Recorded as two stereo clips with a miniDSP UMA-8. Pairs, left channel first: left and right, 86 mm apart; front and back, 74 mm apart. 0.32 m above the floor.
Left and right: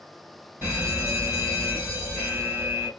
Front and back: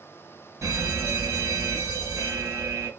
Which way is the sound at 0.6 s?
155° right.